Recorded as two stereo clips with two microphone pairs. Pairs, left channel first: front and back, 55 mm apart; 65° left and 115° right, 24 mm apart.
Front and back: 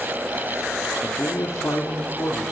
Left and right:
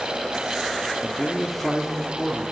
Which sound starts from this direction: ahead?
A man speaking, at 1.0 s.